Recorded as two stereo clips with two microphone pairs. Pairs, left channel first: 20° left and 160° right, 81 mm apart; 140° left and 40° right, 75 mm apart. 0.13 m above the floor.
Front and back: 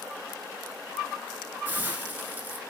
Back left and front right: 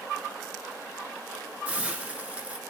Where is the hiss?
105° right, 1.4 m.